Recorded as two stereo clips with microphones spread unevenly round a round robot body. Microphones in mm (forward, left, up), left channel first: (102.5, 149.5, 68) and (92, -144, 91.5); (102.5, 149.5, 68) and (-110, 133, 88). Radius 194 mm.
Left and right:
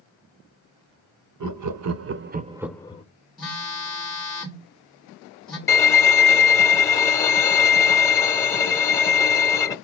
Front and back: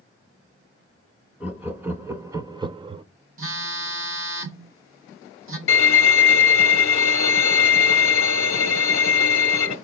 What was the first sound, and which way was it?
Laughter, 90° right.